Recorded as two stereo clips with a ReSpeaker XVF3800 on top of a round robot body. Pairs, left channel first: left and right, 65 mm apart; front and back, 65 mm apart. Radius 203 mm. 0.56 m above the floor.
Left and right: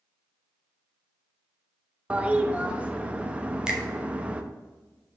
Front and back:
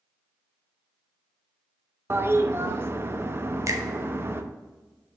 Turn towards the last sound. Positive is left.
turn(degrees=-165)